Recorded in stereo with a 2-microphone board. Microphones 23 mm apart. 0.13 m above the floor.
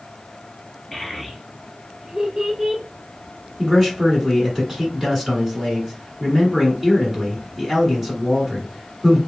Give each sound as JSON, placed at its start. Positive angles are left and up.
{"t": 0.9, "sound": "a child speaking", "side_deg": 5, "distance_m": 1.5}
{"t": 3.6, "sound": "a man speaking", "side_deg": -10, "distance_m": 1.6}